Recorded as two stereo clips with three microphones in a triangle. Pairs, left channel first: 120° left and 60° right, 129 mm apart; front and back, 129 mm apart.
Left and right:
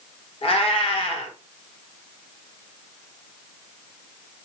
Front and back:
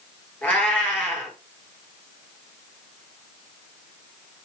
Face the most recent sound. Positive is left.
turn(degrees=80)